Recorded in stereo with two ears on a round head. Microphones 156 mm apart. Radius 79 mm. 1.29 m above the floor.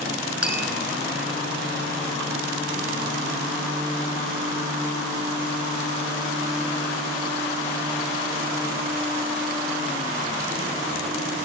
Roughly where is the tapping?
Centre.